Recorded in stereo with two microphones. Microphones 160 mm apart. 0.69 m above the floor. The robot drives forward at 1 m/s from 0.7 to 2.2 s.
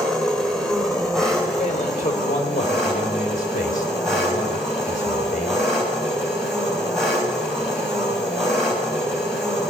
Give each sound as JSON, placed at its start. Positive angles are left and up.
{"t": 0.0, "sound": "an engine running", "side_deg": 5, "distance_m": 2.5}
{"t": 1.6, "sound": "a man speaking", "side_deg": 45, "distance_m": 3.0}